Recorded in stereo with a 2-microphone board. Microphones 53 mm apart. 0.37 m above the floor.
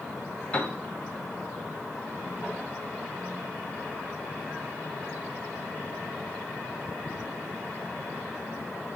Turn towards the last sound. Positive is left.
turn(degrees=25)  # may be behind; listen again after turning